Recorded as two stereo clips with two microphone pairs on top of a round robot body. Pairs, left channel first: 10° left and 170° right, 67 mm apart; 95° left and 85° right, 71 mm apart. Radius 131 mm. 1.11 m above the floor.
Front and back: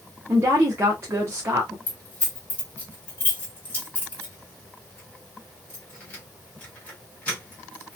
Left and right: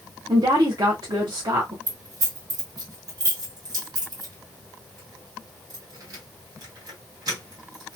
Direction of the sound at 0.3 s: 115° right.